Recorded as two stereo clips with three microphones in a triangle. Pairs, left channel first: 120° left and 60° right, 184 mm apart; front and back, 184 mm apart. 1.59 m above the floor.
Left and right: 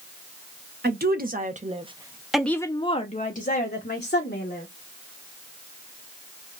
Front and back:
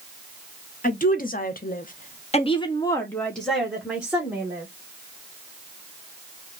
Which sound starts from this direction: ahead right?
A woman speaking, at 0.8 s.